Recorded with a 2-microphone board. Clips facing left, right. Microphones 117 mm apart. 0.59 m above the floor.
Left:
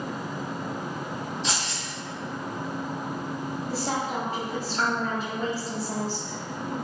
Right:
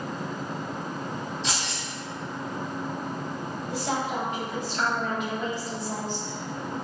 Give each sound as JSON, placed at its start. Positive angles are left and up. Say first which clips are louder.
{"t": 1.4, "sound": "keys jangling", "louder": "left 1 dB", "side_deg": 25, "distance_m": 1.5}
{"t": 3.7, "sound": "a woman speaking", "louder": "right 1 dB", "side_deg": 35, "distance_m": 0.8}